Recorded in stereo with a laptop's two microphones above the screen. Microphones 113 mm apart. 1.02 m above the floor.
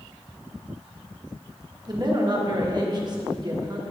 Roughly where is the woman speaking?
Right.